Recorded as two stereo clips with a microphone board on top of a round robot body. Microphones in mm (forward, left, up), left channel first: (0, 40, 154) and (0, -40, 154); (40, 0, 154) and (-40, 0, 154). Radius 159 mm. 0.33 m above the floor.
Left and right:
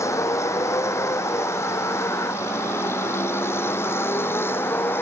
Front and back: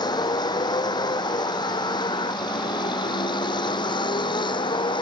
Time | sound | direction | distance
0.0 | a vehicle | 35° left | ?